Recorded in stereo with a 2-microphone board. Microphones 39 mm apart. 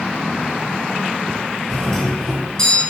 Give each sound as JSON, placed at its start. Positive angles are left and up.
{"t": 1.7, "sound": "a doorbell", "side_deg": 15, "distance_m": 2.5}